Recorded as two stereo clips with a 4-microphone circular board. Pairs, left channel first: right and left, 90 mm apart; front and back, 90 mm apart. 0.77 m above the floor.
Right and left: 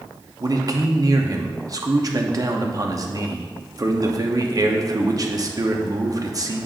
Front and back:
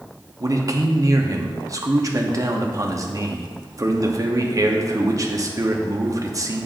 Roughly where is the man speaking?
Behind left.